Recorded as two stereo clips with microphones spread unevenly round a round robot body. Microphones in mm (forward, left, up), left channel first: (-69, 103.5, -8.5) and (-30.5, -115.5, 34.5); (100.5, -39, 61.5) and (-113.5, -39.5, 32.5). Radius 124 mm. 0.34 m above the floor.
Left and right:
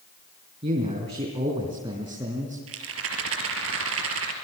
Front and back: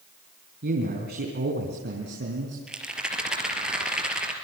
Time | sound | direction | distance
0.6 | a man speaking | 140° right | 3 m
2.7 | a rattle | 95° right | 4 m